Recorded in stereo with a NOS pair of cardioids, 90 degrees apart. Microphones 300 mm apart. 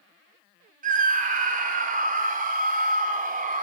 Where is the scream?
30° right, 3 m.